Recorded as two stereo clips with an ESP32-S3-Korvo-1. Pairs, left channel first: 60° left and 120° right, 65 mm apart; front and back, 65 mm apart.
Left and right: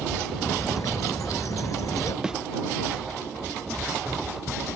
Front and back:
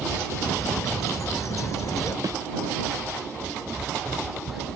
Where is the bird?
30° left.